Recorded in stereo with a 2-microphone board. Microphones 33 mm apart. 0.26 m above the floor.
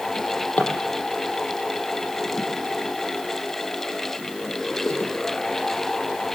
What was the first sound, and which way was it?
A drawer, 65° left (ahead or behind).